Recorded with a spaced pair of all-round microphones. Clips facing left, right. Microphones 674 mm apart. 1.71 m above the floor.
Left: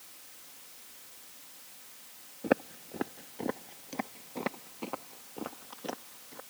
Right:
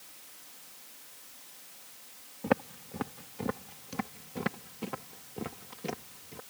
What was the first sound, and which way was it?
Footsteps, 30° right (ahead or behind).